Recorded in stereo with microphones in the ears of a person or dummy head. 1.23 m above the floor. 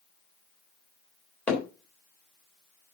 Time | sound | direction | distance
1.5 | hammering | 5° left (ahead or behind) | 3.5 m